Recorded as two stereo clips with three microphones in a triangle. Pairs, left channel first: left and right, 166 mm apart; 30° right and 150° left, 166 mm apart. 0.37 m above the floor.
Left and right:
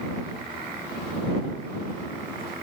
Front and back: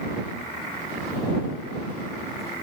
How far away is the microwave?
I don't hear a microwave.